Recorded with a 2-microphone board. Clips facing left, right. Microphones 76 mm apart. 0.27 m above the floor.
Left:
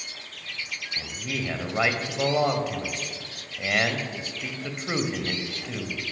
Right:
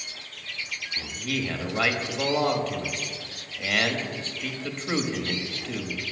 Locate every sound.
1.0 s a man speaking: 15° left (ahead or behind), 0.9 m